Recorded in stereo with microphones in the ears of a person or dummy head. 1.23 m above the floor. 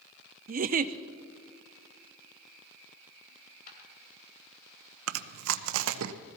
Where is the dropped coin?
50° left (ahead or behind), 3 m.